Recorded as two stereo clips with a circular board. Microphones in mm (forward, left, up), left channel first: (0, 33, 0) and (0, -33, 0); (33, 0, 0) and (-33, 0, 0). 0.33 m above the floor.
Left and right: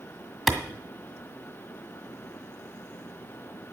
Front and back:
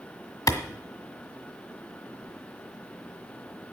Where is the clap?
Straight ahead, 1.7 m.